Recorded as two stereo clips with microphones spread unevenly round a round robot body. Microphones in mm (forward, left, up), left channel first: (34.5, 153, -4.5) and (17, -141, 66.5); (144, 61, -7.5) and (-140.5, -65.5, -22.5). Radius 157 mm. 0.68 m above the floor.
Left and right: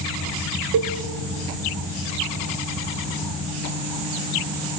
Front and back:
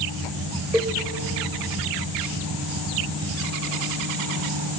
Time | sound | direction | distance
0.7 | a cowbell | 70° right | 2 m